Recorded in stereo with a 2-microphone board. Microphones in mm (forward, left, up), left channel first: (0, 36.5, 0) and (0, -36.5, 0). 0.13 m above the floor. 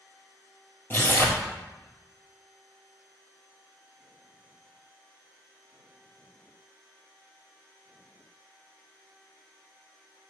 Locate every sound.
0.9 s tearing paper: 30° left (ahead or behind), 1.5 m